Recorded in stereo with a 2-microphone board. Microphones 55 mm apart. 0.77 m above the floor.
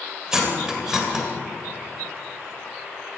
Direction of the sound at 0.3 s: 15° right (ahead or behind).